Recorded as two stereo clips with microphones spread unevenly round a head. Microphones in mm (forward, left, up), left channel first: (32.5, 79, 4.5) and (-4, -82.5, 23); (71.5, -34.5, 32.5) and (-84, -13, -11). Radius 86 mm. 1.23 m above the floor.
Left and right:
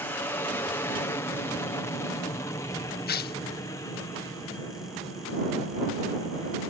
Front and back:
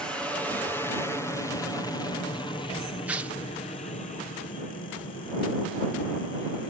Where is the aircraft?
115° left; by 6.7 s 20° left.